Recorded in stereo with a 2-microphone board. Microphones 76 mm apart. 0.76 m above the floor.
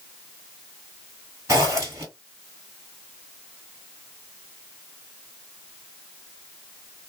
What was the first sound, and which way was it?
A zipper, 40° right (ahead or behind).